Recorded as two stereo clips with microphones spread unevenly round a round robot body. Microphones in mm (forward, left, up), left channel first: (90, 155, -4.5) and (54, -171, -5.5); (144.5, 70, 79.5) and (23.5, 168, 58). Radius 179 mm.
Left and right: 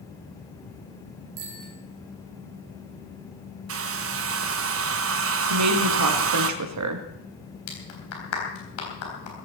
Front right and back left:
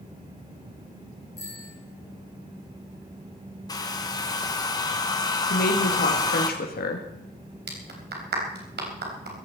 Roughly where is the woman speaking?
Ahead right.